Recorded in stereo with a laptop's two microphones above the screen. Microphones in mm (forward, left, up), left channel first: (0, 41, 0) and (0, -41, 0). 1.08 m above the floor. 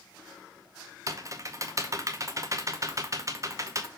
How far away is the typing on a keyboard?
About 0.6 m.